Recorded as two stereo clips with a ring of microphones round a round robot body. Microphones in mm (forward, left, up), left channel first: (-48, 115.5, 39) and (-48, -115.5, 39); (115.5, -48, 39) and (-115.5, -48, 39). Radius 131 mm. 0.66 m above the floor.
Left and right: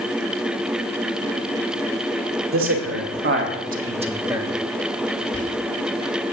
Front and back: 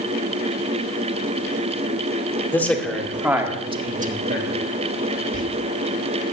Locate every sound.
2.5 s a man speaking: 80° right, 2 m; by 4.5 s 175° right, 1.4 m
5.3 s whispering: 45° right, 1.6 m